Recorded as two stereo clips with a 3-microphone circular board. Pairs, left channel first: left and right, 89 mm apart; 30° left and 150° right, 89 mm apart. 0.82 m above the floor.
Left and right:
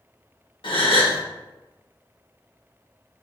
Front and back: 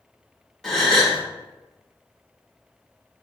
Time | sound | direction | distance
0.6 | a gasp | 120° left | 1.0 m